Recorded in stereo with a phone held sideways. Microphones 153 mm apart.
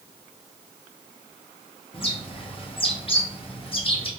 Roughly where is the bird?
Left.